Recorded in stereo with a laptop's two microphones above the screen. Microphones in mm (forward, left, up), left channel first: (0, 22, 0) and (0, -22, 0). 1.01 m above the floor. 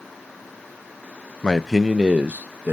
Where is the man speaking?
20° left (ahead or behind), 0.5 m; by 2.7 s 50° right (ahead or behind), 0.8 m.